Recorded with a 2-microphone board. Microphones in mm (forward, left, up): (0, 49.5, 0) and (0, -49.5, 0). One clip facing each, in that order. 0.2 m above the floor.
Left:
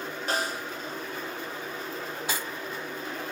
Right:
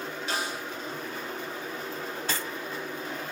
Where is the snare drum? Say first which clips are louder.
Left 3 dB; 40° left (ahead or behind), 2.5 m.